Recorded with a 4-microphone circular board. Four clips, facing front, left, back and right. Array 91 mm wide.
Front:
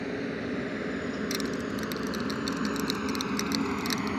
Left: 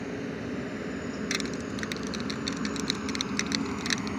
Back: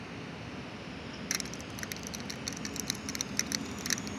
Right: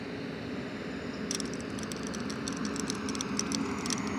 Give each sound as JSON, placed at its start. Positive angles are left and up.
{"t": 0.0, "sound": "a helicopter", "azimuth_deg": 15}
{"t": 1.3, "sound": "crushing", "azimuth_deg": 100}